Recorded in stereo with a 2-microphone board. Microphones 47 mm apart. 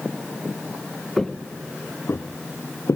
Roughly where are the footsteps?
Centre.